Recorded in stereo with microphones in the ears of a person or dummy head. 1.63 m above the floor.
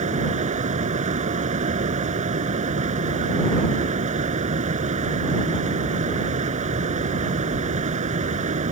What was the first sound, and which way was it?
A fan, 40° right (ahead or behind).